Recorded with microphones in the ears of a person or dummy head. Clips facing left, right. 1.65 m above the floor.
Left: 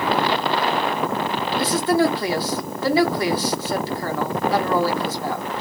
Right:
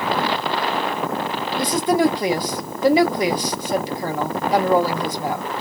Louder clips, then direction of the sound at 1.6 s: Right 1 dB; 10° right (ahead or behind).